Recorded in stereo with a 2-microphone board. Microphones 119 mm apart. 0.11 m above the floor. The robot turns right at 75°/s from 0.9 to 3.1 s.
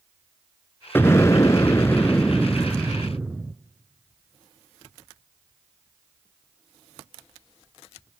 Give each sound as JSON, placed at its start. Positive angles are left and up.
{"t": 0.9, "sound": "an explosion", "side_deg": 20, "distance_m": 0.6}